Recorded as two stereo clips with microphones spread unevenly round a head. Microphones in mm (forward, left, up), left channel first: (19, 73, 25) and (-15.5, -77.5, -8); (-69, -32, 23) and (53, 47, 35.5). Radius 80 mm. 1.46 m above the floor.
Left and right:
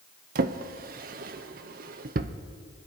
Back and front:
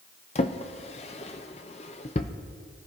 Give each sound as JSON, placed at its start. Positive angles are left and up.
{"t": 0.3, "sound": "a drawer", "azimuth_deg": -110, "distance_m": 0.6}